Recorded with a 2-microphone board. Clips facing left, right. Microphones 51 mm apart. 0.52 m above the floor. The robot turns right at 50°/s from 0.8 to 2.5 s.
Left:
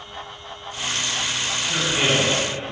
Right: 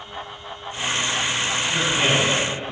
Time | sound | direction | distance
1.6 | a man speaking | 70° left | 1.9 m